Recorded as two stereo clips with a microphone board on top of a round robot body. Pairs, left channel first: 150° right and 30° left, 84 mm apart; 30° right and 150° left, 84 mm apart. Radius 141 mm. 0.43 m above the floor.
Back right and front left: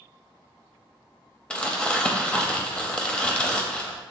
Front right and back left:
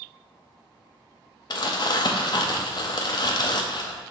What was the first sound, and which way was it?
Crumpling, 70° right.